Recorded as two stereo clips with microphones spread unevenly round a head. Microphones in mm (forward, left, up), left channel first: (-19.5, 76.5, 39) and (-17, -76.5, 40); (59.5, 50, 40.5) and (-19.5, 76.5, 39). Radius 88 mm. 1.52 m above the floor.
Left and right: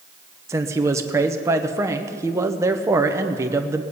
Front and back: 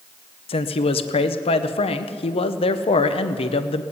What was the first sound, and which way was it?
A man speaking, 15° right.